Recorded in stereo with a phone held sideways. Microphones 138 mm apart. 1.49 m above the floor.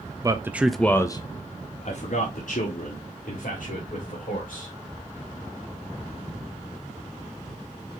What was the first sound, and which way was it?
A man speaking, 25° right (ahead or behind).